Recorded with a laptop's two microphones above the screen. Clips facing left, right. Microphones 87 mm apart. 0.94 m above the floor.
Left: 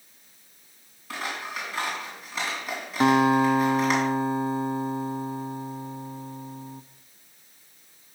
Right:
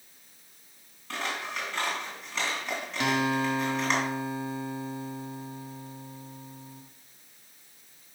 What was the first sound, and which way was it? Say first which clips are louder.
Scissors: left 1 dB; 5° left (ahead or behind).